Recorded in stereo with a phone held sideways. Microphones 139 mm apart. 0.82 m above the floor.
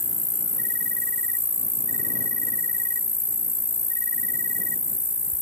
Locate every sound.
0.0 s an insect: 20° left (ahead or behind)